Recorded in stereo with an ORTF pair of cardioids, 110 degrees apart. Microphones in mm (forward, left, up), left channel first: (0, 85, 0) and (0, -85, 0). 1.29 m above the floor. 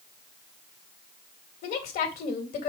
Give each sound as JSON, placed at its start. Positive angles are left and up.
{"t": 1.6, "sound": "a woman speaking", "azimuth_deg": 65, "distance_m": 2.0}